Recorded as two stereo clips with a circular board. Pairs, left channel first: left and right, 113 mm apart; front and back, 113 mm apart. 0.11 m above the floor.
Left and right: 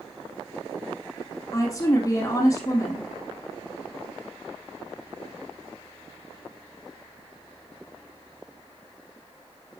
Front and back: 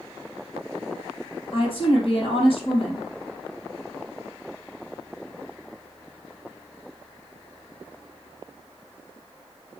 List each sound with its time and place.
1.5 s a woman speaking: 30° left, 3.5 m